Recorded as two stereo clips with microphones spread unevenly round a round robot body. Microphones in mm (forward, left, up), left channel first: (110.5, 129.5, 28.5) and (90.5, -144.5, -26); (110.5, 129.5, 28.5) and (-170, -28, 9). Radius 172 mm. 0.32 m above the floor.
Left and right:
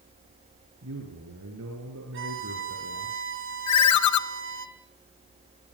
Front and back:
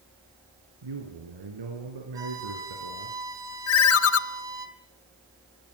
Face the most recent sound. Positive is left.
turn(degrees=70)